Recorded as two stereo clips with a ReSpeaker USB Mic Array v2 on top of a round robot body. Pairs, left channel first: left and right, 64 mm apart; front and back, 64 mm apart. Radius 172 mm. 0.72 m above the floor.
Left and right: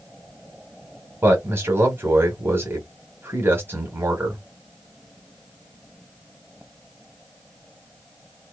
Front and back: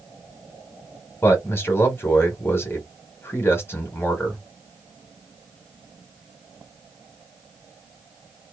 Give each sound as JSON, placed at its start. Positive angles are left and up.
{"t": 1.2, "sound": "a man speaking", "azimuth_deg": -45, "distance_m": 1.5}